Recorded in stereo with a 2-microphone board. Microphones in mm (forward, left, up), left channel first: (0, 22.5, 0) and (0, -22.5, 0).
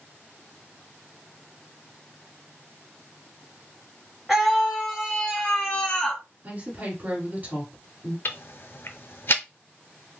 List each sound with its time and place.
4.3 s a scream: 5° right (ahead or behind), 1.6 m; by 6.2 s 30° left (ahead or behind), 1.7 m
6.4 s a woman speaking: 40° right (ahead or behind), 2 m
8.2 s ticking: 55° left (ahead or behind), 0.6 m